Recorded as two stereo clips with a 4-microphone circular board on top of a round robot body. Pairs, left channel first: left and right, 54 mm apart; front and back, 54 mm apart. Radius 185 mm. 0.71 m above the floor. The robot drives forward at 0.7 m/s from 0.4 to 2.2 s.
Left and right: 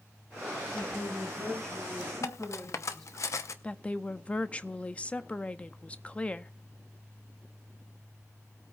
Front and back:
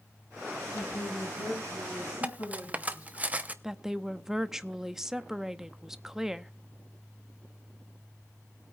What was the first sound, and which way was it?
A woman speaking, 20° left.